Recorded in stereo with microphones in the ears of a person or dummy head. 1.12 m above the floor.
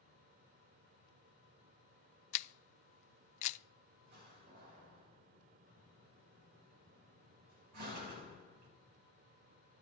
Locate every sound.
2.3 s a camera shutter: 40° left (ahead or behind), 0.5 m
4.0 s a door slam: 55° right (ahead or behind), 2.5 m